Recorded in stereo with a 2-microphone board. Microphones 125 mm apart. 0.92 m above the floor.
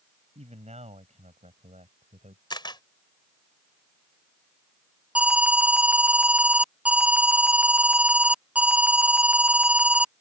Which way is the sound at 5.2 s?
10° right (ahead or behind).